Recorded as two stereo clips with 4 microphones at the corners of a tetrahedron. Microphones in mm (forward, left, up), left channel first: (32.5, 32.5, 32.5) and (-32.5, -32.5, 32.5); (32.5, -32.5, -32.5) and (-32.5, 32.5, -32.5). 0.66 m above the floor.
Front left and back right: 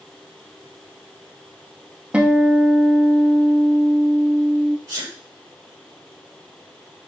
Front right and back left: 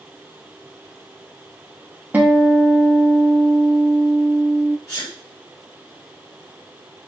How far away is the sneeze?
About 3 m.